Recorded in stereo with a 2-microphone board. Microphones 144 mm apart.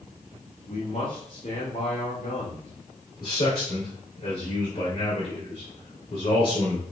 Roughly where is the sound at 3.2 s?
Left.